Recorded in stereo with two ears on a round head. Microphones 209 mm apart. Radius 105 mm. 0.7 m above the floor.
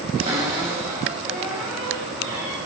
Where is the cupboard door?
25° right (ahead or behind), 3.5 m.